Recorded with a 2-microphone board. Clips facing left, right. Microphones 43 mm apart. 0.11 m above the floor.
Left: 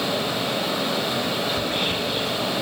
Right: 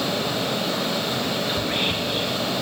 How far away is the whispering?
About 1.3 m.